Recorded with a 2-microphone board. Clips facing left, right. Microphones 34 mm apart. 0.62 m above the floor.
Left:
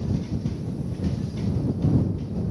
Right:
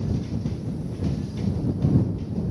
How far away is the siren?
I don't hear a siren.